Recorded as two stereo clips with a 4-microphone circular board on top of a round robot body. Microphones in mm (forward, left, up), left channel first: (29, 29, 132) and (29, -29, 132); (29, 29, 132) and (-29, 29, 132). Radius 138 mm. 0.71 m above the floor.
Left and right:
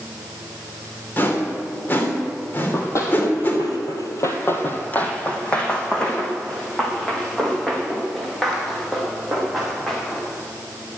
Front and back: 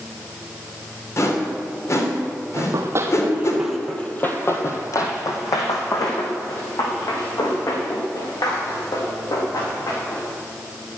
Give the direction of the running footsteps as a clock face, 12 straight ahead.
7 o'clock.